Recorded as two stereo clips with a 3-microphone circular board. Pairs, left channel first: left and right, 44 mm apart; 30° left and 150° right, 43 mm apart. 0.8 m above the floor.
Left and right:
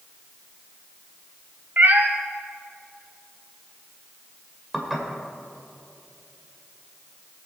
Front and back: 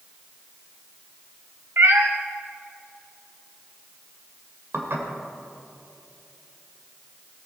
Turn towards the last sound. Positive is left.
turn(degrees=-175)